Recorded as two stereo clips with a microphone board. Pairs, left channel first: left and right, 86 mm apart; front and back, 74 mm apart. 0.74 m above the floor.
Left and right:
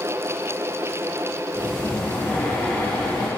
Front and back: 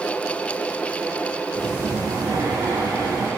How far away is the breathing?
About 3 m.